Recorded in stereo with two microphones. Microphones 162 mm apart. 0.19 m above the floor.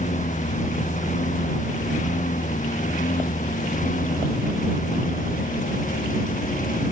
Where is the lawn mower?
50° left (ahead or behind); by 6.9 s 55° left (ahead or behind).